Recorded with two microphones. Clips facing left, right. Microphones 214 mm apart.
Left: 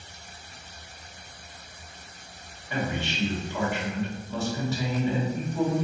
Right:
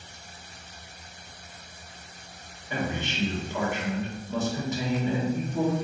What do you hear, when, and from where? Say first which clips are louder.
2.7 s a man speaking: left 1 dB; 20° right (ahead or behind), 1.6 m